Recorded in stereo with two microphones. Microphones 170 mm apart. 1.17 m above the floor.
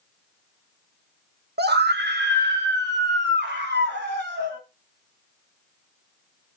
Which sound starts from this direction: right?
A scream, at 1.6 s.